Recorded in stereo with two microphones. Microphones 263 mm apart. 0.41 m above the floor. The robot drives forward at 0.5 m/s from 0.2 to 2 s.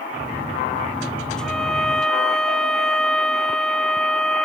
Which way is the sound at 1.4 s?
Centre (ahead or behind).